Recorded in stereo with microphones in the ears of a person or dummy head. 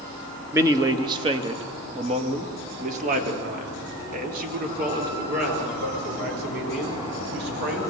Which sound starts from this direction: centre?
A man speaking, at 0.5 s.